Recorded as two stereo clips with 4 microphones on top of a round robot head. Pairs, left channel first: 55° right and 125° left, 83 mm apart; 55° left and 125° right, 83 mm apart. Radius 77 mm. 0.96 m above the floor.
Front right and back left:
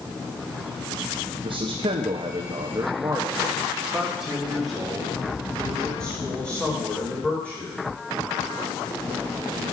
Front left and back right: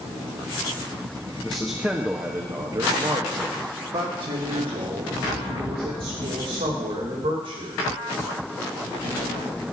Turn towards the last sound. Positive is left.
turn(degrees=-130)